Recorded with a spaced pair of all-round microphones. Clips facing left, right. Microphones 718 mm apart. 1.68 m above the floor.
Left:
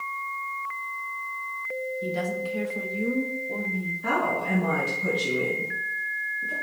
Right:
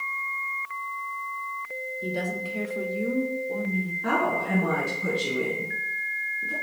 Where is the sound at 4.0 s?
15° left (ahead or behind), 2.5 m.